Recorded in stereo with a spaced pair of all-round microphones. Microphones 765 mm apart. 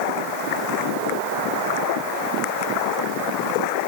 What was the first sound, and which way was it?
Only background noise.